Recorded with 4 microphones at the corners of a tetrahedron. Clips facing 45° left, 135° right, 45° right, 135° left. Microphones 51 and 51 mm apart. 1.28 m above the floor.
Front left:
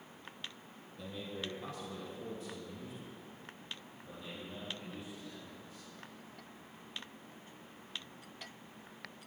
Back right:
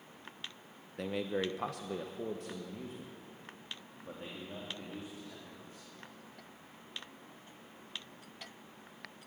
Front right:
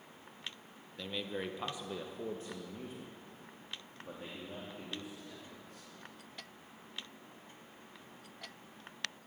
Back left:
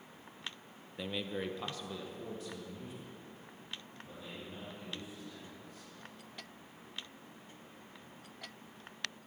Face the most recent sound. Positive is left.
turn(degrees=-80)